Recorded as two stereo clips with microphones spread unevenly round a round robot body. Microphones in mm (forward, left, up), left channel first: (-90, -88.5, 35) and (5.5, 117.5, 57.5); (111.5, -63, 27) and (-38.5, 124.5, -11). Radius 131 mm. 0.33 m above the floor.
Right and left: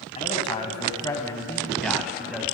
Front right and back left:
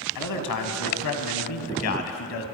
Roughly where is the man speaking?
Ahead right.